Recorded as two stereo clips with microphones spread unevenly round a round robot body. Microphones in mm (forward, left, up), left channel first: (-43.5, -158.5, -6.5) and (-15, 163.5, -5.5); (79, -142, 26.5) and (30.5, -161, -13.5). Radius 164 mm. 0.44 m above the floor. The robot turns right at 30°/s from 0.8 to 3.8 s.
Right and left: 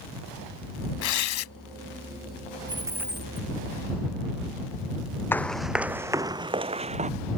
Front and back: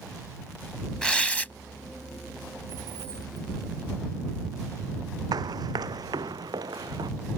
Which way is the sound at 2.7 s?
160° left.